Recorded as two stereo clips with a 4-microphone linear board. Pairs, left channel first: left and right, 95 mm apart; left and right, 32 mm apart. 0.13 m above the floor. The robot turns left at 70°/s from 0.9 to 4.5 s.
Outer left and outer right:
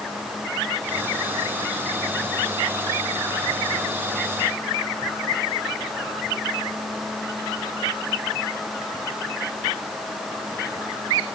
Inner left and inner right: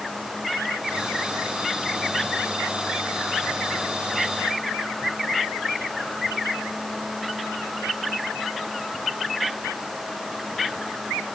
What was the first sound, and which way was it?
Only background noise.